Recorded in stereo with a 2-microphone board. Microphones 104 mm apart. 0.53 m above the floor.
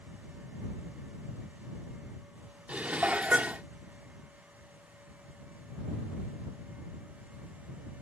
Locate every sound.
2.7 s dishes clattering: 15° right (ahead or behind)